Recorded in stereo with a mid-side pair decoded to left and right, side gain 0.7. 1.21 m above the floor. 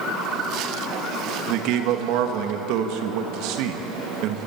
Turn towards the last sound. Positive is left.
turn(degrees=-65)